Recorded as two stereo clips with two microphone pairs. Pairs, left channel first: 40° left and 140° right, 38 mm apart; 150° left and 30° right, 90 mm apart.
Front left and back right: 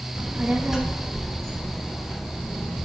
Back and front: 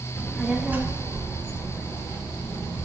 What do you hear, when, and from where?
0.1 s a child speaking: 150° right, 1.2 m; by 2.9 s 25° right, 3 m